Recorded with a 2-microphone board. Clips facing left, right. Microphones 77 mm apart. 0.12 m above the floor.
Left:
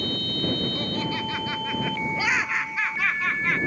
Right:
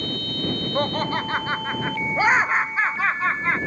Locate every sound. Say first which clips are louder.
0.8 s laughter: right 5 dB; 50° right (ahead or behind); by 3.6 s 30° right (ahead or behind)